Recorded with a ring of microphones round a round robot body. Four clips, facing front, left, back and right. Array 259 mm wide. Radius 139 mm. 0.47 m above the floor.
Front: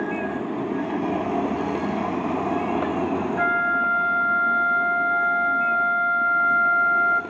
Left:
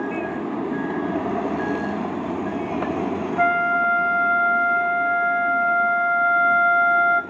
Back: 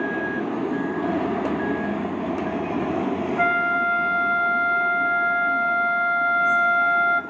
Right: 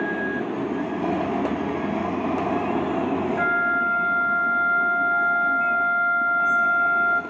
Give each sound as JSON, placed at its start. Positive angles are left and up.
{"t": 3.4, "sound": "a flute", "azimuth_deg": 105, "distance_m": 0.6}